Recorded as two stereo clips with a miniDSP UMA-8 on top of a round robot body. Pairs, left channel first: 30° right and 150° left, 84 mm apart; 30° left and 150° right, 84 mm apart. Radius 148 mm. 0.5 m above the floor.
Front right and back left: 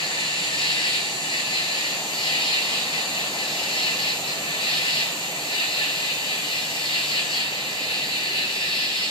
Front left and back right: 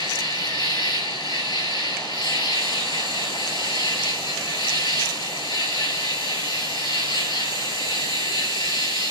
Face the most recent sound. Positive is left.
turn(degrees=-5)